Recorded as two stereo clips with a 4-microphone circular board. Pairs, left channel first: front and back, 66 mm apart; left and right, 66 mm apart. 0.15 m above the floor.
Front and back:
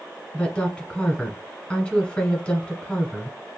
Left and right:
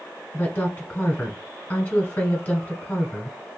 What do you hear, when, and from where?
0.3 s a woman speaking: 55° left, 1.2 m